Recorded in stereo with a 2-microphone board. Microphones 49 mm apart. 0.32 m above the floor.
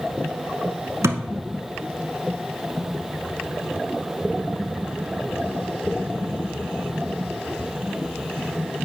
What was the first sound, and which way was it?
A thud, 85° right.